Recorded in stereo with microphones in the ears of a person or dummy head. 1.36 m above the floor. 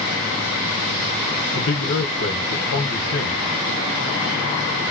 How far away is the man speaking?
About 1.4 m.